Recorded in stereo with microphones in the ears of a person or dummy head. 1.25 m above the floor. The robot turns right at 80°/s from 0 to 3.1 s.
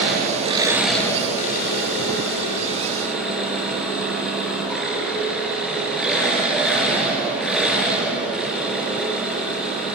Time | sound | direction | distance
0.0 | an engine running | 70° right | 5.5 m